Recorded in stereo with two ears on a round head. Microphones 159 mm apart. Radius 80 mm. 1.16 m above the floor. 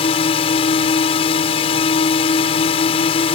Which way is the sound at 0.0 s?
35° left (ahead or behind).